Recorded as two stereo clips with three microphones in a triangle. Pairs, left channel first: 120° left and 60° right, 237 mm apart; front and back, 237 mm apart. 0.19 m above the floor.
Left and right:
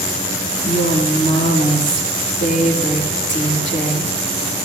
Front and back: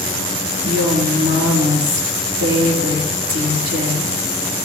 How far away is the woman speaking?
About 4 m.